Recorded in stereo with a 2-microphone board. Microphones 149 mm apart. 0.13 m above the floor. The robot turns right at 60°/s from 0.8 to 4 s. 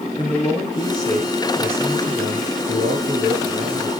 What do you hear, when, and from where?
0.1 s a man speaking: 140° left, 2.5 m; by 3.9 s 30° right, 2.5 m